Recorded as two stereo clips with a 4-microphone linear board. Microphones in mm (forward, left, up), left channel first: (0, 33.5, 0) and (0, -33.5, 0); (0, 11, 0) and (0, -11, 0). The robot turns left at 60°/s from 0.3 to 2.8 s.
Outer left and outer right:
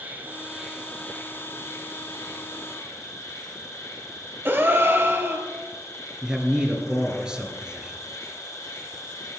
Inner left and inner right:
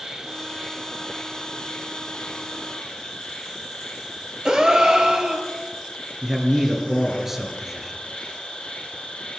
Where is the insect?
150° right, 2.5 m; by 9.4 s 60° left, 2.5 m.